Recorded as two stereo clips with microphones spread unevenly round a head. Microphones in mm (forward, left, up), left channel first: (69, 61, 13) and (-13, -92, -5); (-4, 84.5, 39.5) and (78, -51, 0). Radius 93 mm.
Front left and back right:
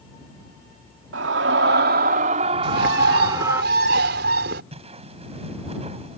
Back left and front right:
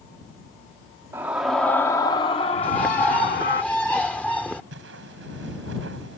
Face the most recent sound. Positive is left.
turn(degrees=-60)